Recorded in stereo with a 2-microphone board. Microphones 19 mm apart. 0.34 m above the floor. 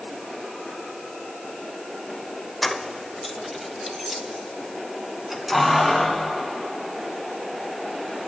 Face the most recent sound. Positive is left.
turn(degrees=-15)  # may be behind; listen again after turning